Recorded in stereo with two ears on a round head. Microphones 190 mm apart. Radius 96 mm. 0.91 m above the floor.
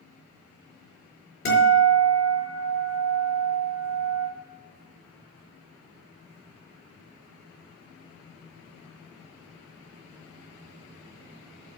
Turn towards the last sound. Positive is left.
turn(degrees=45)  # may be behind; listen again after turning